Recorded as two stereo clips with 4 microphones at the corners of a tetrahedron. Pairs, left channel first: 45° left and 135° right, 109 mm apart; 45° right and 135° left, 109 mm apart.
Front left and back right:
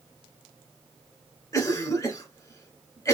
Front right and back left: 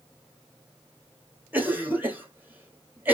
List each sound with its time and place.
1.5 s a cough: 75° left, 1.3 m